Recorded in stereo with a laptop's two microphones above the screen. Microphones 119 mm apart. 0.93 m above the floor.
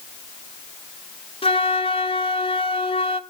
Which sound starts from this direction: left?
A flute, at 1.4 s.